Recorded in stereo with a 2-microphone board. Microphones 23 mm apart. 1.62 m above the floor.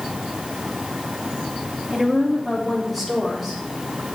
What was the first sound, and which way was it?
A woman speaking, 5° right (ahead or behind).